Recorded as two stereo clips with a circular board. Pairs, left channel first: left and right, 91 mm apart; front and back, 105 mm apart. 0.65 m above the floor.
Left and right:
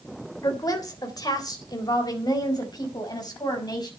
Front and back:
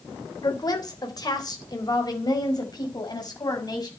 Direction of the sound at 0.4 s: 45° left.